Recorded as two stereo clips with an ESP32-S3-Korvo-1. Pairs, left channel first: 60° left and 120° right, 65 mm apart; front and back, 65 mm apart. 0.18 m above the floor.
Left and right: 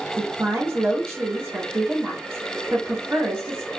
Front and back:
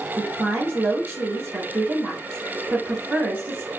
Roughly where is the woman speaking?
Behind right.